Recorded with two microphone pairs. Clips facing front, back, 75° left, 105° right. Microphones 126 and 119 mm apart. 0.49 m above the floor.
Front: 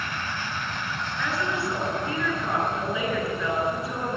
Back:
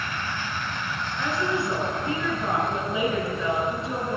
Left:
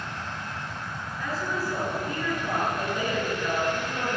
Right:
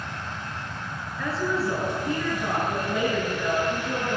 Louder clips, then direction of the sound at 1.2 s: Back 3 dB, right 4 dB; 115° right.